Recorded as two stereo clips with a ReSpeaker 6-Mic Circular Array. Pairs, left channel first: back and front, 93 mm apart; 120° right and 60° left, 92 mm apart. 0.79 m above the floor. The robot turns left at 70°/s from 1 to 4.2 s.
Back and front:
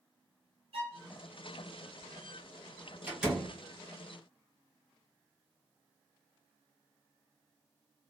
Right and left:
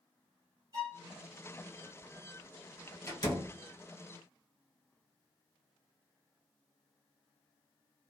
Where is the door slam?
70° right, 1.6 m; by 3.6 s 105° right, 1.6 m.